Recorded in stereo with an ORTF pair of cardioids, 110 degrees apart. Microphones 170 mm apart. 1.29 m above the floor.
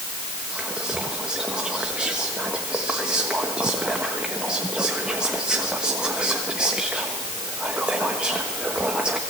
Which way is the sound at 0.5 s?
5° right.